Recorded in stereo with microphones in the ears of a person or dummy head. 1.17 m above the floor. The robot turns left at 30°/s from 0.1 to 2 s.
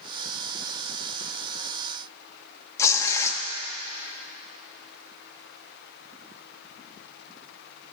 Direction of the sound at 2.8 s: 15° left (ahead or behind).